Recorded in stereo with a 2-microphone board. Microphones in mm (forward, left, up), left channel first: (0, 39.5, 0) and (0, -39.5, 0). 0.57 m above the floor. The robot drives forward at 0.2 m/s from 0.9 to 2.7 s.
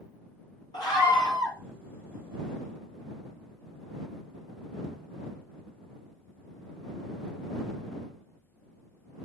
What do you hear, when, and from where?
0.7 s a scream: 60° left (ahead or behind), 3.5 m; by 1.6 s 65° left (ahead or behind), 3.5 m